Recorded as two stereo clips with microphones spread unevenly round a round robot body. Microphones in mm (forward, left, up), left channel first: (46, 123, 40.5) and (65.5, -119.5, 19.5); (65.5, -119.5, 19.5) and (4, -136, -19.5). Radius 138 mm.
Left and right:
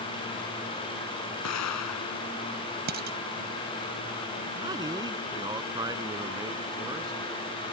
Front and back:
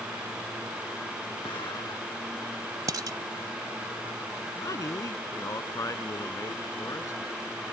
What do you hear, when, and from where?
1.4 s an explosion: 80° left
2.9 s dishes clattering: 140° right
4.5 s a man speaking: 10° right